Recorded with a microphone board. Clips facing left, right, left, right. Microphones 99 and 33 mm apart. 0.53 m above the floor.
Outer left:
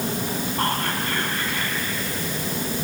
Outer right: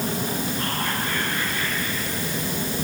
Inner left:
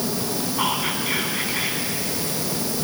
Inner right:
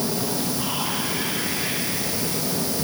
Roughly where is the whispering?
Left.